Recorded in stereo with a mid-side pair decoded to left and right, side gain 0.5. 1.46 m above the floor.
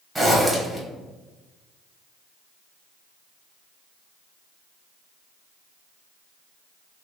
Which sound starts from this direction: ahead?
A zipper, at 0.1 s.